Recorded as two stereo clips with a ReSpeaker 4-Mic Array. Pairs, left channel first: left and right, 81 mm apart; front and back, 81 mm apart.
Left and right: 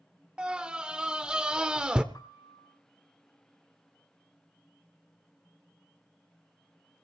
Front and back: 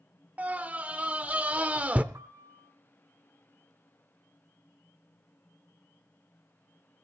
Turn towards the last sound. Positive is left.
turn(degrees=130)